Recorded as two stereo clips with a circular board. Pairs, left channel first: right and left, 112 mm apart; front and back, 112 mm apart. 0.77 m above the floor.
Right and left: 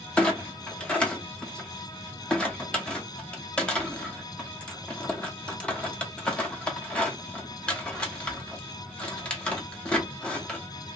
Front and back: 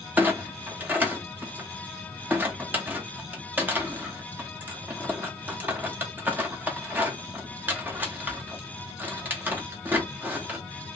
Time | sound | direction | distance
0.2 | a clunk | 150° right | 1.0 m